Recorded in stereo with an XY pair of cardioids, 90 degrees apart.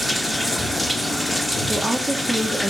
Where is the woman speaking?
Straight ahead, 2.5 m.